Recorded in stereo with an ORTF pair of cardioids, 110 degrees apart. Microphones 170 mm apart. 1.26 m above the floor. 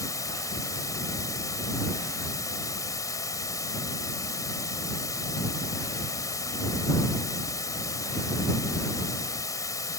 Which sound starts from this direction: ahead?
Running water, at 0.0 s.